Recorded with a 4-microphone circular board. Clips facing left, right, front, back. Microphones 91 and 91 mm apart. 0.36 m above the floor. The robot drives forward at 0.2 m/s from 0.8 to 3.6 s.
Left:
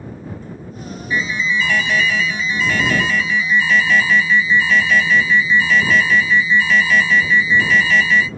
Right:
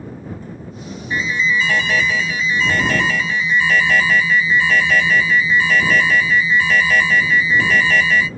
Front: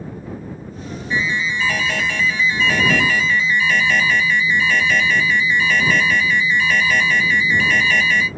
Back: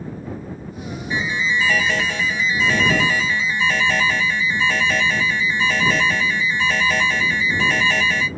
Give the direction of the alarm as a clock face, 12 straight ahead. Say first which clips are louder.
Right 1 dB, front 1 dB; 4 o'clock.